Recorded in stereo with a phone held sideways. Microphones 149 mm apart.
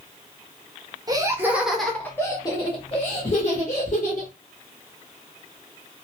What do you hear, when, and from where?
1.1 s laughter: 25° right (ahead or behind), 0.8 m; by 4.3 s 60° left (ahead or behind), 1.5 m